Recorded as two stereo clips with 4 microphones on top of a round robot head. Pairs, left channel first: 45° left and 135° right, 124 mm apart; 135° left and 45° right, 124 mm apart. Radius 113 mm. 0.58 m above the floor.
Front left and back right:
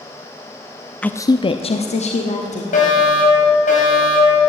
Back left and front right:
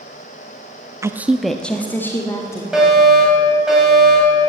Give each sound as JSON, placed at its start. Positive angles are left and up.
{"t": 1.0, "sound": "a woman speaking", "azimuth_deg": -20, "distance_m": 0.7}
{"t": 2.7, "sound": "a fire alarm", "azimuth_deg": 35, "distance_m": 6.0}